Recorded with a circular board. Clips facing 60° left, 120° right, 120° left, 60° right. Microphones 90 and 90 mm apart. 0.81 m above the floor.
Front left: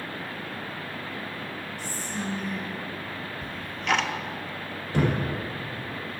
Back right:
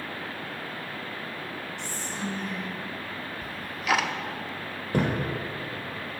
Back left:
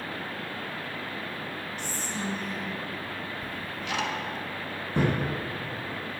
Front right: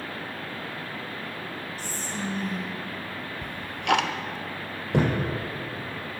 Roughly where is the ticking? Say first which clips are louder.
Even, front right 4 dB; ahead right.